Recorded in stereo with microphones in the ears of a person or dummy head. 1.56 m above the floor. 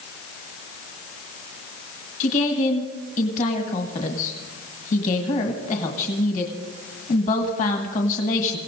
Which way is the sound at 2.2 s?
40° left (ahead or behind).